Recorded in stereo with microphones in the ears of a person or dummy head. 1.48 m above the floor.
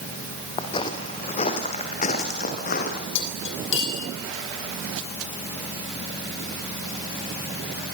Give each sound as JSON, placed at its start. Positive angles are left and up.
{"t": 0.6, "sound": "footsteps", "side_deg": 30, "distance_m": 3.5}
{"t": 3.1, "sound": "cutlery clinking", "side_deg": 75, "distance_m": 5.5}